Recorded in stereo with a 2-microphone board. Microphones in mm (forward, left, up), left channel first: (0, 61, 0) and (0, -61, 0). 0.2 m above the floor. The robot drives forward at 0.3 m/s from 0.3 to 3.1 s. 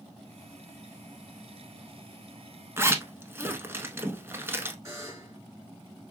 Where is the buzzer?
25° right (ahead or behind), 2.0 m.